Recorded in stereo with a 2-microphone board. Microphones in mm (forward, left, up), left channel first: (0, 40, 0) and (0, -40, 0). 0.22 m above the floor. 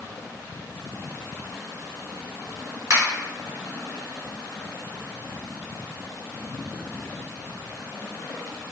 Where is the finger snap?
40° right (ahead or behind), 1.9 m.